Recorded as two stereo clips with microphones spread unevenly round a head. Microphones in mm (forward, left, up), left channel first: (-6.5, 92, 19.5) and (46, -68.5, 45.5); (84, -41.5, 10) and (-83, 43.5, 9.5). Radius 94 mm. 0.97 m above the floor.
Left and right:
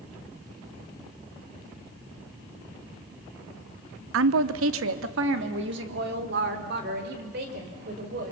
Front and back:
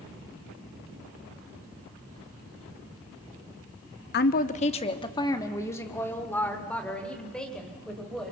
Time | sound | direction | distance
4.1 | a woman speaking | 65° right | 0.9 m